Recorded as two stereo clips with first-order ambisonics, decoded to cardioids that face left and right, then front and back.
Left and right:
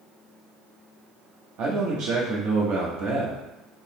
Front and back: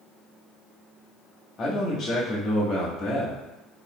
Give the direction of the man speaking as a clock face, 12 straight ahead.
2 o'clock.